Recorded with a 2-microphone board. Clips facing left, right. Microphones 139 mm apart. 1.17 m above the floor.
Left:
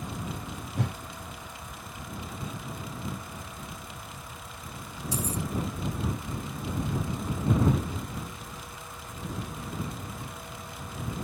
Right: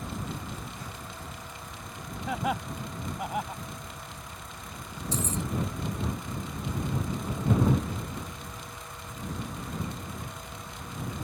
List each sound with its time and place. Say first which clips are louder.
0.8 s a whoosh: left 9 dB; 70° left (ahead or behind)
2.3 s laughter: right 13 dB; 85° right
5.1 s keys jangling: even; 10° left (ahead or behind)